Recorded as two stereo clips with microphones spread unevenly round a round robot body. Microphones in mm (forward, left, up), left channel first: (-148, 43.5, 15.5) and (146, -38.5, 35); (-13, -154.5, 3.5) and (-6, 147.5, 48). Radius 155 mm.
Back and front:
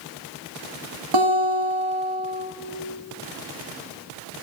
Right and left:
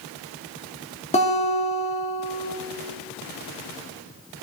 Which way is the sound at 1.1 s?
25° right.